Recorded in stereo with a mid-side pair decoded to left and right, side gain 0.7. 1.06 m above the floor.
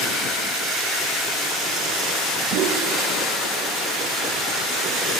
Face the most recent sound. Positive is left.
turn(degrees=-55)